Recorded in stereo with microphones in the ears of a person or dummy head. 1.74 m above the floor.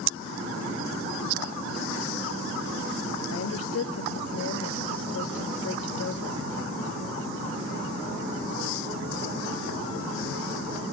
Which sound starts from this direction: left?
A woman speaking, at 3.3 s.